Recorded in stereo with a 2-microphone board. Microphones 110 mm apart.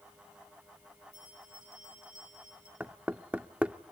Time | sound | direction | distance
1.1 | a bell | 85° left | 6 m
2.8 | knocking | 10° right (ahead or behind) | 0.6 m